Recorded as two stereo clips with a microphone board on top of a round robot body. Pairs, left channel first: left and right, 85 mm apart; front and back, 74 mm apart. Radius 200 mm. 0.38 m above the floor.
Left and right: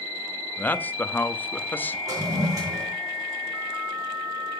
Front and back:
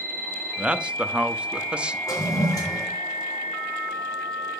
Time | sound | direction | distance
0.6 | a man speaking | 125° left | 1.1 m
2.1 | a toilet flushing | 40° right | 3.5 m